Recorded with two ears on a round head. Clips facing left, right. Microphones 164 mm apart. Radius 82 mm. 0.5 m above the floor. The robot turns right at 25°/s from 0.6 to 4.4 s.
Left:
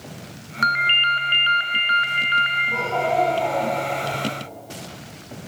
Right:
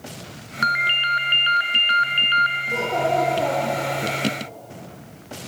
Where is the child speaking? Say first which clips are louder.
Right 1 dB; 145° right, 8.5 m; by 4.1 s 115° right, 8.5 m.